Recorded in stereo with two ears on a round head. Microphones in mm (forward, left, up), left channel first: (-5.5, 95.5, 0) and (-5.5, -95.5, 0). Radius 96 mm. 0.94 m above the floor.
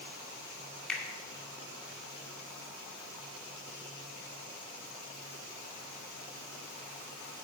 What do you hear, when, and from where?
0.9 s a finger snap: 5° left (ahead or behind), 2 m